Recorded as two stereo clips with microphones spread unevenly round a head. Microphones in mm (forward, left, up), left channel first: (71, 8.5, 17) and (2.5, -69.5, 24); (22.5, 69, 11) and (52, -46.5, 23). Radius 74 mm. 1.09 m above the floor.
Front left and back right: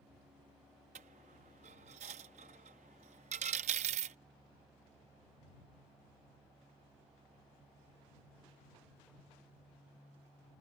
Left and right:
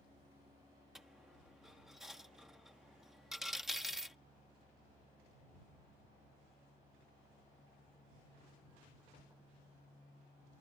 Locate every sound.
0.9 s a dropped coin: 160° right